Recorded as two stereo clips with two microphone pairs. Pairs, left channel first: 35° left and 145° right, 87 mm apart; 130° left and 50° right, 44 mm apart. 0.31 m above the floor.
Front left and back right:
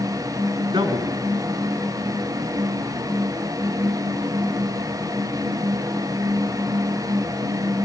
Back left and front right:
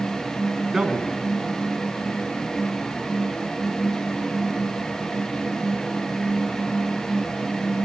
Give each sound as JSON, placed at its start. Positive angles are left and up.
{"t": 0.7, "sound": "a man speaking", "azimuth_deg": -130, "distance_m": 3.5}